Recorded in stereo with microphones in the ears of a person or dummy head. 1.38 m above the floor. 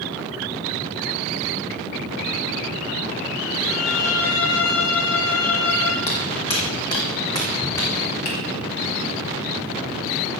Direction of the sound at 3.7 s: 70° left (ahead or behind).